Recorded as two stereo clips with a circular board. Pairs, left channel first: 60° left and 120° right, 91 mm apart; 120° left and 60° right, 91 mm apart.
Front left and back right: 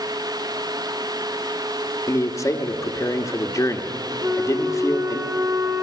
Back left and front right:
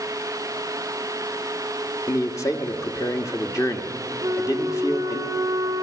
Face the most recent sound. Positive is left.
turn(degrees=-75)